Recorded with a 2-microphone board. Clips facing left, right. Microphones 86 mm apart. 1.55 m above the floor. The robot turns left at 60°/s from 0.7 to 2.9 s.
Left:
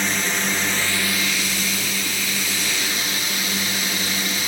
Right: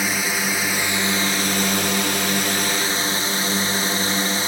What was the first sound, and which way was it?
A drone, 5° right.